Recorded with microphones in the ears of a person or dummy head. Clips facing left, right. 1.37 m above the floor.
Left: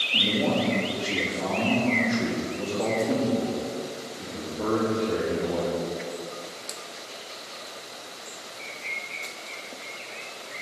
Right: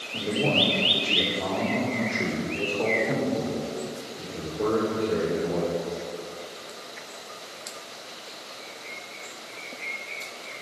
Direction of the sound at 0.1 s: 70° left (ahead or behind).